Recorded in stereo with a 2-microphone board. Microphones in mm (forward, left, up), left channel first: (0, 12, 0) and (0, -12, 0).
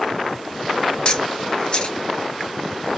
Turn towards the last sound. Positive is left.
turn(degrees=35)  # may be behind; listen again after turning